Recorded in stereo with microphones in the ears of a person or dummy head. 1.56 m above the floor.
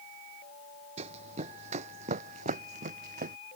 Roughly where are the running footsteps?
Right.